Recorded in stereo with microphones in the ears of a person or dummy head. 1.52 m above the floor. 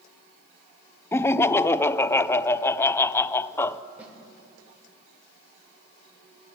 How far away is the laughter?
About 0.7 m.